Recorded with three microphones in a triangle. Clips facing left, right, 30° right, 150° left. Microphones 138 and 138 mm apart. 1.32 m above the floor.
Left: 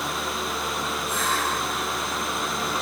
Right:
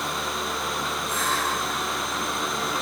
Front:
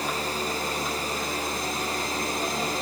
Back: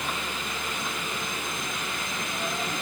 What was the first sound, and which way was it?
Only background noise.